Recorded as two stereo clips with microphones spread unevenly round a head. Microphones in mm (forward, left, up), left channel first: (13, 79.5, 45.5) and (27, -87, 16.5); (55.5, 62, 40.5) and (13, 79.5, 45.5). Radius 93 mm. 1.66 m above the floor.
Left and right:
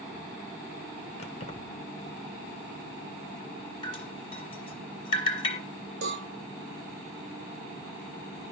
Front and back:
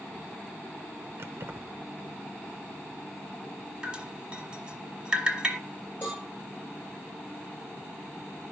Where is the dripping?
110° left, 1.5 m.